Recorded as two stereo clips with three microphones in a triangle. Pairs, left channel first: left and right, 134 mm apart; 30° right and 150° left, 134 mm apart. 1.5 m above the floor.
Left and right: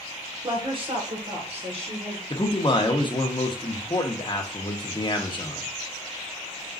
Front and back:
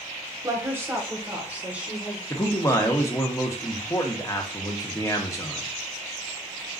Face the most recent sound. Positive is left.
turn(degrees=35)